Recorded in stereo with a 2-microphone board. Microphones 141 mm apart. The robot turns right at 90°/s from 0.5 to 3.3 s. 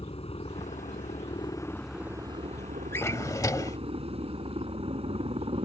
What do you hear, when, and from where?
0.0 s a helicopter: 55° left; by 5.7 s 55° right
2.9 s a drawer: 20° left (ahead or behind); by 3.8 s 25° left (ahead or behind)